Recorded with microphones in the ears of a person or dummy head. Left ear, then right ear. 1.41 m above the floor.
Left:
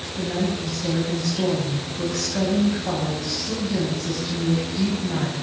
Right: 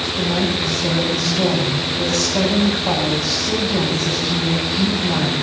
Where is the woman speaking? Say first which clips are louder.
Right 4 dB; 25° right (ahead or behind), 7 m.